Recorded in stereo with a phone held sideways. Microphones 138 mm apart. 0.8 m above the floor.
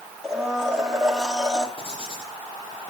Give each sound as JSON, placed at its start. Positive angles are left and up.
{"t": 0.2, "sound": "a blender", "side_deg": -5, "distance_m": 1.9}
{"t": 1.8, "sound": "writing", "side_deg": 45, "distance_m": 7.5}